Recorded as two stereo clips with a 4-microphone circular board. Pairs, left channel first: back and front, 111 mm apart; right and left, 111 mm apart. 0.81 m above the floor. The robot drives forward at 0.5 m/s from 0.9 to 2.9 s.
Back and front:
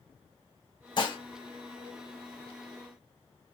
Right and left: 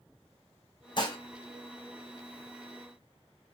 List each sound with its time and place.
1.0 s dishes clattering: 135° right, 0.6 m; by 1.2 s 140° right, 0.7 m